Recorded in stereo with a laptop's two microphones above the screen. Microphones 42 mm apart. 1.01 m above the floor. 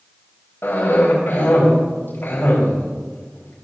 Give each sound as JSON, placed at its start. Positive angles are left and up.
{"t": 0.6, "sound": "a cough", "side_deg": 55, "distance_m": 5.5}